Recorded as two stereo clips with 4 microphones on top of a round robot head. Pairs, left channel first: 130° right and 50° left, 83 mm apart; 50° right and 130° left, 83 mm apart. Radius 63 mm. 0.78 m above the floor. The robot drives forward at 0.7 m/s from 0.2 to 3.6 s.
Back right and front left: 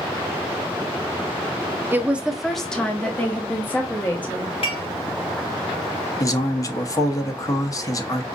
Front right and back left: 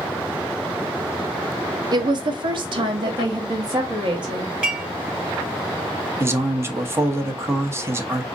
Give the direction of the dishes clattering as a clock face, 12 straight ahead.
5 o'clock.